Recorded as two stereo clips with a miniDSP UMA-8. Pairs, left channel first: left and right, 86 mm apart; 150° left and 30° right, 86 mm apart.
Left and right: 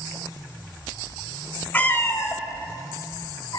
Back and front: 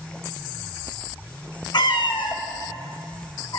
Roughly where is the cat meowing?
Behind.